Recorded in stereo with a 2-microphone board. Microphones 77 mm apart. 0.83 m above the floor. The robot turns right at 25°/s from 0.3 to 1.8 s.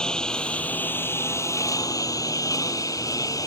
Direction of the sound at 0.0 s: 10° left.